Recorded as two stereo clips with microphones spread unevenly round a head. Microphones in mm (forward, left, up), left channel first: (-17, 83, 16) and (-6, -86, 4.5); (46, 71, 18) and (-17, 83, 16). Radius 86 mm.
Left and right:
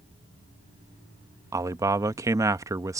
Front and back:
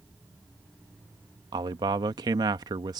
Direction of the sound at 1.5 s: 160° right.